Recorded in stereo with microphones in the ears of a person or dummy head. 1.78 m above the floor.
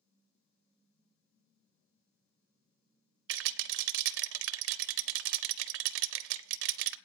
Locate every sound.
3.3 s a rattle: 70° right (ahead or behind), 0.7 m